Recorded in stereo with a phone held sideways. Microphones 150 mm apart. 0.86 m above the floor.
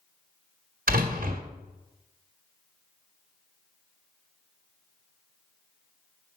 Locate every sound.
0.9 s a door slam: 70° right (ahead or behind), 1.7 m